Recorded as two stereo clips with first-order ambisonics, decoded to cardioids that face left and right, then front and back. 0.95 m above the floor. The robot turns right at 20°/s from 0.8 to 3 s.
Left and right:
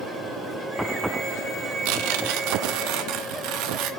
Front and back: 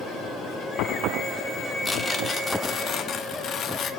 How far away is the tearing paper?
About 0.7 m.